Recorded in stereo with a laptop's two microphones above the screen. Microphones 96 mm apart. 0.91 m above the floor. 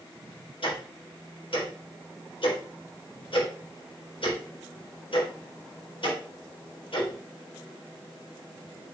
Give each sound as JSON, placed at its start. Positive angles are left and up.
{"t": 0.6, "sound": "ticking", "side_deg": 70, "distance_m": 4.5}